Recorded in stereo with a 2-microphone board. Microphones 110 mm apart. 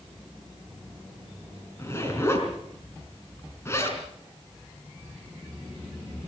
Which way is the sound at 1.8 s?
25° left (ahead or behind).